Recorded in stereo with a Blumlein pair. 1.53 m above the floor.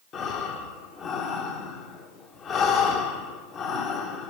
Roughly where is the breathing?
Ahead left.